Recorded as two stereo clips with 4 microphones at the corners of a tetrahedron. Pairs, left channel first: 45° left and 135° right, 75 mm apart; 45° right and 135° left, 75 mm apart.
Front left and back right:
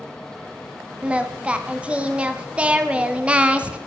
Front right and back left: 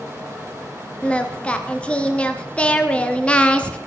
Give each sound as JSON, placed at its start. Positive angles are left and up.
{"t": 1.0, "sound": "singing", "azimuth_deg": -95, "distance_m": 1.2}